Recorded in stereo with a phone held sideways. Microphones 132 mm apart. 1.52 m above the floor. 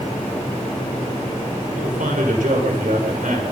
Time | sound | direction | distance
1.7 | a man speaking | 85° right | 6 m